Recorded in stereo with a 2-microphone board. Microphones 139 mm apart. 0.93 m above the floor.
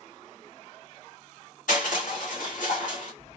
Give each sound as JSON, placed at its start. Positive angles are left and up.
{"t": 1.7, "sound": "crushing", "side_deg": 70, "distance_m": 1.6}